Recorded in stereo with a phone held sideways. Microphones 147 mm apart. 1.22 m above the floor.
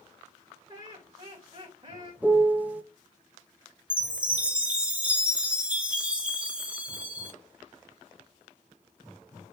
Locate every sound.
0.7 s laughter: 30° right (ahead or behind), 2 m
2.2 s a piano: 10° right (ahead or behind), 0.5 m
3.9 s a chime: 10° right (ahead or behind), 1.0 m